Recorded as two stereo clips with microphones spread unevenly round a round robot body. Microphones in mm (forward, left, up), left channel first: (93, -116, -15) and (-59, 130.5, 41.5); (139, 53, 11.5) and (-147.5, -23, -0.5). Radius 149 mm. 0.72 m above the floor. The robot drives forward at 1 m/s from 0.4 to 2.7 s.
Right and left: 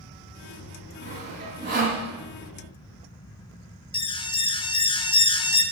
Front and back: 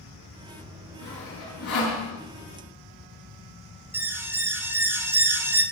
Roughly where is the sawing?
Ahead left.